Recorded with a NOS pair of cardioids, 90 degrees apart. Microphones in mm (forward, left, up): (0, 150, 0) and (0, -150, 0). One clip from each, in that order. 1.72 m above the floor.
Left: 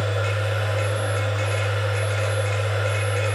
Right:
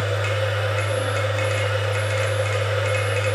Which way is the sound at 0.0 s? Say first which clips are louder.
Right 2 dB; 30° right.